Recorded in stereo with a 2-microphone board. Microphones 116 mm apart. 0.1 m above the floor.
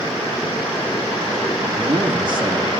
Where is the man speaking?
40° right (ahead or behind), 3 m.